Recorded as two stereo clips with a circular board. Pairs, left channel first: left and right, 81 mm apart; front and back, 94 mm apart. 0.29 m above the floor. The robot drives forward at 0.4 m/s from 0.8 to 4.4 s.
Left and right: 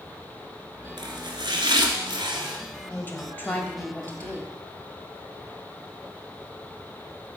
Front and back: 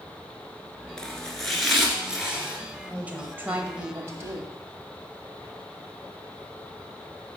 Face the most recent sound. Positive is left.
turn(degrees=150)